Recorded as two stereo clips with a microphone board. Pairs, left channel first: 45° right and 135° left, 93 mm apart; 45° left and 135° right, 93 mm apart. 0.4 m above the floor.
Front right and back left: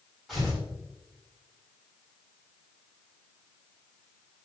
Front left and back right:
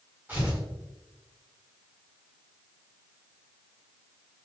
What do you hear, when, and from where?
0.3 s tearing paper: 140° right, 1.5 m